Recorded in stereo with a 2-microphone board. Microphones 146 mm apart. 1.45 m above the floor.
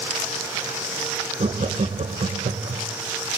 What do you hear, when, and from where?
1.4 s laughter: 45° right (ahead or behind), 1.3 m